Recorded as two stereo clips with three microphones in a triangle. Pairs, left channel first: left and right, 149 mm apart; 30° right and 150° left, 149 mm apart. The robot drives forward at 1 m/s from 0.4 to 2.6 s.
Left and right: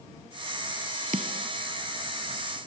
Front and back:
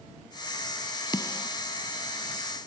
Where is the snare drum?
90° right; by 1.5 s 120° right.